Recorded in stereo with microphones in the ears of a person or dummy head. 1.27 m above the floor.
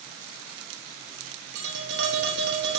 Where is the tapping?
65° right (ahead or behind), 1.3 m.